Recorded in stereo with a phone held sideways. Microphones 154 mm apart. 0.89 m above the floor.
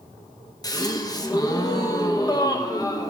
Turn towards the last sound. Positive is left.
turn(degrees=25)  # may be behind; listen again after turning